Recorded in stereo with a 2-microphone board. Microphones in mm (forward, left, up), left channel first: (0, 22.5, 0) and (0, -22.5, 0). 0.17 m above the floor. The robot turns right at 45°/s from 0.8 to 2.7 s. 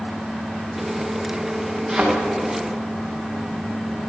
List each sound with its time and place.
1.9 s a thud: centre (ahead or behind), 6 m; by 2.1 s 10° right (ahead or behind), 6 m